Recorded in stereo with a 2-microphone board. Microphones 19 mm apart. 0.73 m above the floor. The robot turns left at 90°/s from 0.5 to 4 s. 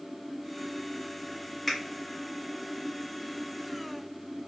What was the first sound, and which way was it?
A finger snap, 10° left (ahead or behind).